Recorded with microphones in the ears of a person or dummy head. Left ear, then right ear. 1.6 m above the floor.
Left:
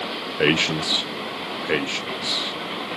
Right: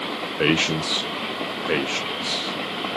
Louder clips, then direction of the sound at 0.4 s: Left 1 dB; 10° left (ahead or behind).